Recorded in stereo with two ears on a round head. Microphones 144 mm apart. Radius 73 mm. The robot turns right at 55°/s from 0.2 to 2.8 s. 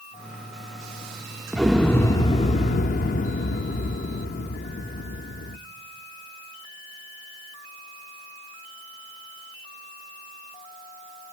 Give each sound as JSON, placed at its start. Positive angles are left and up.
{"t": 1.5, "sound": "an explosion", "azimuth_deg": -10, "distance_m": 0.6}